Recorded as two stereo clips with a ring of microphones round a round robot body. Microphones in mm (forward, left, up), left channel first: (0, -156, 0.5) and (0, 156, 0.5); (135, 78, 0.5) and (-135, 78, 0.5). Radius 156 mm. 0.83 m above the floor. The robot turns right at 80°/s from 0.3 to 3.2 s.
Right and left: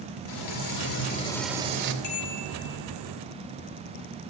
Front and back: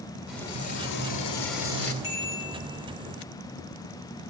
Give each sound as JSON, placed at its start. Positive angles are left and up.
{"t": 0.3, "sound": "frying", "azimuth_deg": -95, "distance_m": 2.5}
{"t": 2.0, "sound": "a bicycle bell", "azimuth_deg": -55, "distance_m": 6.5}